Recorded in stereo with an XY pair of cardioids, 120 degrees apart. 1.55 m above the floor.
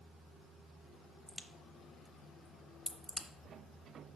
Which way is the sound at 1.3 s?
Straight ahead.